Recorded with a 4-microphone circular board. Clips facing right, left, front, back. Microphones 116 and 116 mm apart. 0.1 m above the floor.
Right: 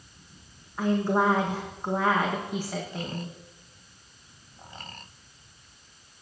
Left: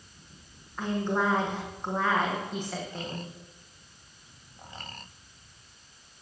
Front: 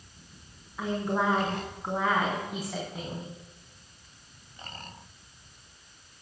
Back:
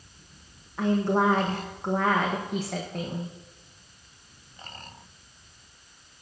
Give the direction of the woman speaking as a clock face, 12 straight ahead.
6 o'clock.